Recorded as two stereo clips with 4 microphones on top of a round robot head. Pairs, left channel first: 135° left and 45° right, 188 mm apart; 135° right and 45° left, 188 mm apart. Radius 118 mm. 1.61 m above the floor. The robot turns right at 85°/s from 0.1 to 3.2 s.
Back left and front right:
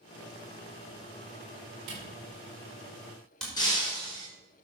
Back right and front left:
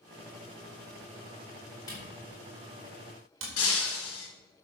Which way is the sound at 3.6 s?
155° right.